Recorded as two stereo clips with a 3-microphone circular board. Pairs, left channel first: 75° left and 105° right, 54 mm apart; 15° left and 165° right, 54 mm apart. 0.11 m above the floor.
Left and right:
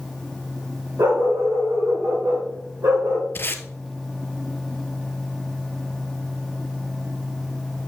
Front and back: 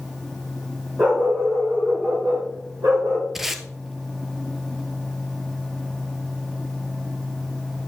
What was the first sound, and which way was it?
A dog barking, 105° right.